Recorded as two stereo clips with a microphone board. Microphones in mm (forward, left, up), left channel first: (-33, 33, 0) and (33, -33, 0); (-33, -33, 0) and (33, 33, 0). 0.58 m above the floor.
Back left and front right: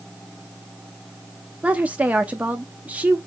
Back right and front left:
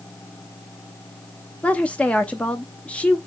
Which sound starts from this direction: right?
A woman speaking, at 1.6 s.